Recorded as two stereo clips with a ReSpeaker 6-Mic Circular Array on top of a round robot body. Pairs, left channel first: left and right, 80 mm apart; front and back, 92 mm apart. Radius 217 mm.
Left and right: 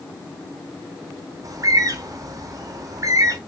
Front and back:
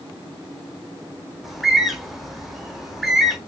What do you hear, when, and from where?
1.4 s a bird: 90° right, 0.9 m